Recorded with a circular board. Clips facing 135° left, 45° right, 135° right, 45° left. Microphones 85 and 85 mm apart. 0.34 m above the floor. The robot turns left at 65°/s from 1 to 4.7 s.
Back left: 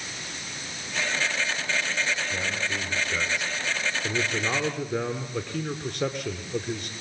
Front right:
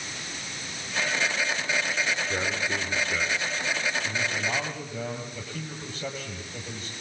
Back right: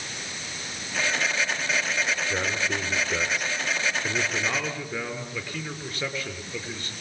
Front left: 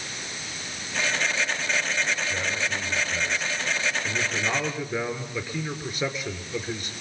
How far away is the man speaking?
About 5 m.